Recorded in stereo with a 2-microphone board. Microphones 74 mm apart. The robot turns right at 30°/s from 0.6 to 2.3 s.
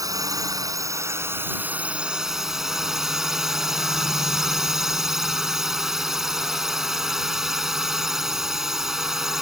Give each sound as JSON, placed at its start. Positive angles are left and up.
{"t": 0.0, "sound": "a drone", "azimuth_deg": -55}